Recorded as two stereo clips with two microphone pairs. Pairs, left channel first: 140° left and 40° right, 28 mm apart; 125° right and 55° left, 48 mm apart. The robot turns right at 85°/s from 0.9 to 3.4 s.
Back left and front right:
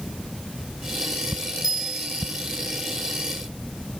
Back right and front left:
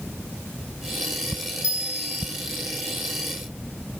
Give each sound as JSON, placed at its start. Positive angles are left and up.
{"t": 1.6, "sound": "a bell", "azimuth_deg": -115, "distance_m": 4.0}